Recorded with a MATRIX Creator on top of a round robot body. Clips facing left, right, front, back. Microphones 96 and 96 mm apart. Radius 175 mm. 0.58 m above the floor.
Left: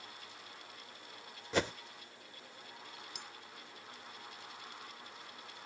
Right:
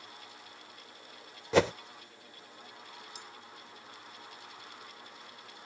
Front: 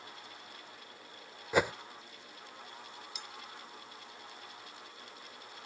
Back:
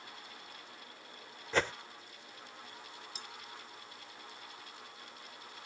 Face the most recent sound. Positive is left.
turn(degrees=125)